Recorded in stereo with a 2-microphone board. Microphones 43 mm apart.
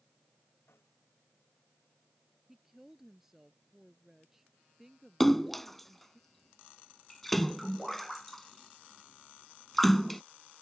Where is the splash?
5° left (ahead or behind).